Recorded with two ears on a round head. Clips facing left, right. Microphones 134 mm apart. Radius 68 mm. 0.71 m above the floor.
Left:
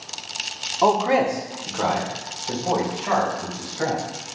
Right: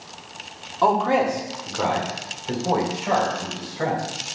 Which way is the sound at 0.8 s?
15° left (ahead or behind).